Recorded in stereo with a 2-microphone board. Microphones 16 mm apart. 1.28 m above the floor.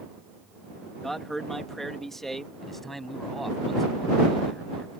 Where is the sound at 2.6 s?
10° left (ahead or behind).